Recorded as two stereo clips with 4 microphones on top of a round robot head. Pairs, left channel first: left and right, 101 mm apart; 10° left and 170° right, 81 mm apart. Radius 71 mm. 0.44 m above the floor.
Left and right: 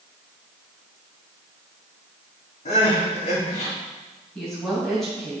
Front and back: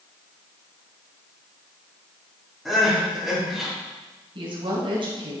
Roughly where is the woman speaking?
Behind.